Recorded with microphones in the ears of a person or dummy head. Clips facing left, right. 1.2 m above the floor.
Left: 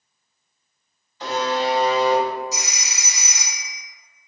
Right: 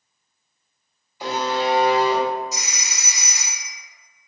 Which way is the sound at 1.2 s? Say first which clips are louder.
Even; 10° right (ahead or behind).